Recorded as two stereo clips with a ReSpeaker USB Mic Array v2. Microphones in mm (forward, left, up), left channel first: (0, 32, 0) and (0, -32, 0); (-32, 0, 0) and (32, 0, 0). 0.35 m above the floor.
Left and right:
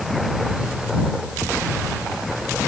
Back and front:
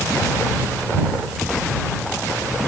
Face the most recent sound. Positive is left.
No sound to turn to.